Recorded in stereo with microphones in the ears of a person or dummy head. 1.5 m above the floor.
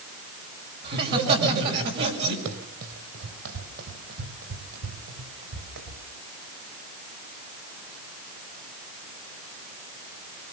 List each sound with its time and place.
0.8 s laughter: 45° right (ahead or behind), 5.5 m; by 2.4 s 50° right (ahead or behind), 6.5 m
2.5 s running footsteps: 60° right (ahead or behind), 3 m; by 6.0 s 70° right (ahead or behind), 5.5 m